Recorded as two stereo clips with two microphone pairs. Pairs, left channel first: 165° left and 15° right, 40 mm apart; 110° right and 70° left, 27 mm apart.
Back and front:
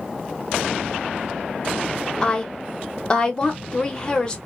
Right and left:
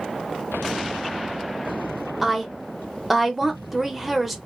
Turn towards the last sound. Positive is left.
turn(degrees=130)